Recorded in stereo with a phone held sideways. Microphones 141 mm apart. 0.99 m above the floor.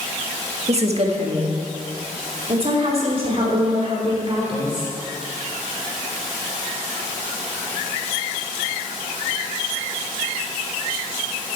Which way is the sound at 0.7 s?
50° right (ahead or behind).